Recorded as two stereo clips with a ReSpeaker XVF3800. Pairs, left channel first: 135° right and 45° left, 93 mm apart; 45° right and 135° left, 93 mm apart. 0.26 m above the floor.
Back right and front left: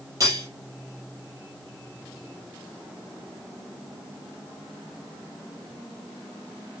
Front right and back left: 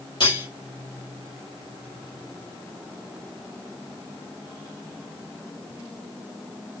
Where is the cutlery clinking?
10° right, 4.5 m.